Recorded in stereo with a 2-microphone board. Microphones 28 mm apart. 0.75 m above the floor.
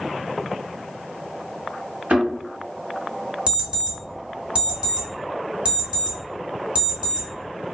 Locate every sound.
2.1 s a thud: 65° right (ahead or behind), 1.3 m
3.5 s an alarm clock: 45° right (ahead or behind), 1.0 m